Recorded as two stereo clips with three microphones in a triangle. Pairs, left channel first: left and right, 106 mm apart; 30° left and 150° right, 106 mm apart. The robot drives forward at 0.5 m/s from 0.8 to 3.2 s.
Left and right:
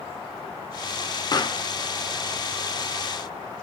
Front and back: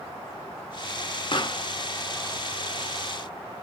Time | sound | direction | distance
1.3 | a pop | 50° left | 0.6 m